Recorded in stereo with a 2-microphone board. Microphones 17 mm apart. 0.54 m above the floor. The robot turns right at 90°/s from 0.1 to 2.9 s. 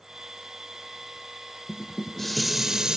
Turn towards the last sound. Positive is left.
turn(degrees=-130)